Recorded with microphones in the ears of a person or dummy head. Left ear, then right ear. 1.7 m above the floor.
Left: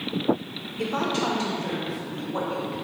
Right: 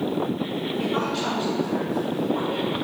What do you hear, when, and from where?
0.8 s a woman speaking: 30° left (ahead or behind), 2 m